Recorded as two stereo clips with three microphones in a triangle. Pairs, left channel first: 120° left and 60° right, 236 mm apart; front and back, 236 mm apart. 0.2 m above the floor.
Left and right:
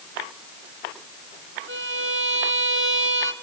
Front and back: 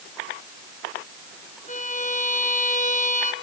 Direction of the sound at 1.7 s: 50° right.